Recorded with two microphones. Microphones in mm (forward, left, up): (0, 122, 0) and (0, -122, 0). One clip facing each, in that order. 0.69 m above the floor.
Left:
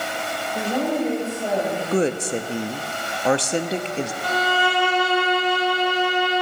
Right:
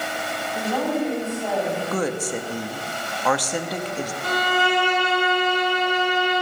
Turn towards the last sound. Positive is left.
turn(degrees=-55)  # may be behind; listen again after turning